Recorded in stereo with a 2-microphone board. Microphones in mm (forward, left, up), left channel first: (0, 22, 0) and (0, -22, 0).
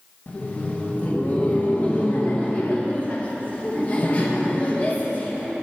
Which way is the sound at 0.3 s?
30° left (ahead or behind).